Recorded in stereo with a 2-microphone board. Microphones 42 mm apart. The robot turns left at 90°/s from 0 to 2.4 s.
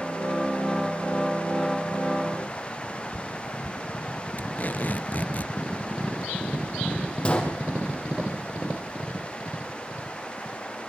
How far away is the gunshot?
About 4 m.